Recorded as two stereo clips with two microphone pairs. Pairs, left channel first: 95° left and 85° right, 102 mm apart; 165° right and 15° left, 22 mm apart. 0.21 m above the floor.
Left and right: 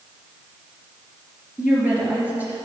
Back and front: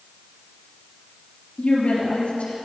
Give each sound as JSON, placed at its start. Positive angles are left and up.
{"t": 1.6, "sound": "a woman speaking", "azimuth_deg": -160, "distance_m": 3.0}